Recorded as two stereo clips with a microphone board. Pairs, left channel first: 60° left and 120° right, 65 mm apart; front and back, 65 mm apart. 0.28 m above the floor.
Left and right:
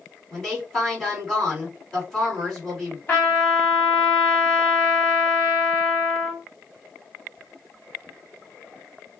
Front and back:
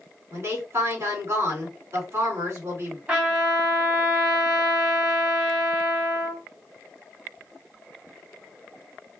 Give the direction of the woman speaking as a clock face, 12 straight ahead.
7 o'clock.